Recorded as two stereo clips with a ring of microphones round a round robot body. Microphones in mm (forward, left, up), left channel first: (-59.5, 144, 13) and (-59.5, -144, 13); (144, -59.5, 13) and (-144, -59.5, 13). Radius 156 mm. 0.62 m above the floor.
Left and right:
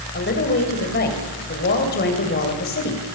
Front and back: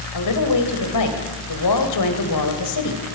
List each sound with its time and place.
0.1 s a woman speaking: 30° left, 3.5 m